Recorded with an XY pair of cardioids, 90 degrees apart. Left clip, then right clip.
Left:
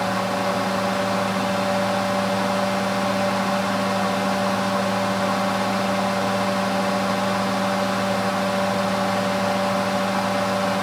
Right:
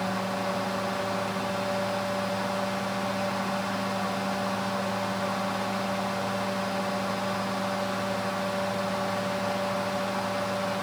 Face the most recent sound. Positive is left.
turn(degrees=50)